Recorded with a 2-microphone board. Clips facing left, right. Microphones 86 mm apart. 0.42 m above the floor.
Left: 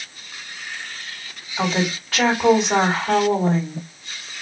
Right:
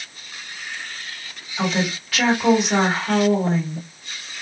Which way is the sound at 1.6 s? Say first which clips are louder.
Left 1 dB; 35° left (ahead or behind).